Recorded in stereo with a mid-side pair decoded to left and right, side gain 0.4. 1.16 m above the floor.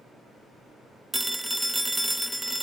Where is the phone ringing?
5° right, 0.6 m.